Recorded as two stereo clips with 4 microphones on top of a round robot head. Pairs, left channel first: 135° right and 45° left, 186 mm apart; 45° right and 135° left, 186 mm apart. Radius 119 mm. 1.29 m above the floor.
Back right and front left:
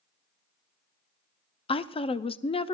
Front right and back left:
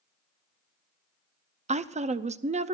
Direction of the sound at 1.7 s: 175° left.